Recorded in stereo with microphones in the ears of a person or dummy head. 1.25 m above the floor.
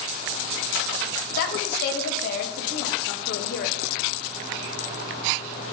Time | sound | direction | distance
1.4 | a woman speaking | 55° left (ahead or behind) | 1.1 m